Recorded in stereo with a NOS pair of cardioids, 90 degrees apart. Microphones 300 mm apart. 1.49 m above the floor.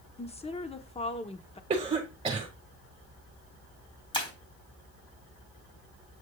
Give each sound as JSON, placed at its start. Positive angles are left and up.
{"t": 0.2, "sound": "a woman speaking", "azimuth_deg": 20, "distance_m": 1.1}
{"t": 1.7, "sound": "a cough", "azimuth_deg": -20, "distance_m": 1.8}
{"t": 4.1, "sound": "breaking glass", "azimuth_deg": 15, "distance_m": 4.0}